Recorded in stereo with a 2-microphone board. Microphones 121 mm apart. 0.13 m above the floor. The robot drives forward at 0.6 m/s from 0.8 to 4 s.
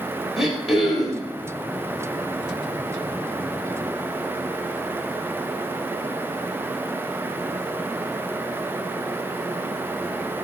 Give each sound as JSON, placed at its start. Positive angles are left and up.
{"t": 0.4, "sound": "throat clearing", "side_deg": 0, "distance_m": 1.7}